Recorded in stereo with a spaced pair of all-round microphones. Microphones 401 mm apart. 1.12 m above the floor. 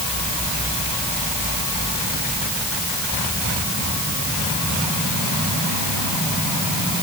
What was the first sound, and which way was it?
Only background noise.